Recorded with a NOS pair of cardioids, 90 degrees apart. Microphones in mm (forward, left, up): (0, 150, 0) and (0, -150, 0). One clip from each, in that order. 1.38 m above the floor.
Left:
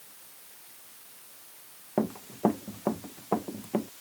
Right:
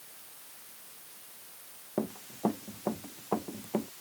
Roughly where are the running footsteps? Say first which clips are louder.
Left 5 dB; ahead left.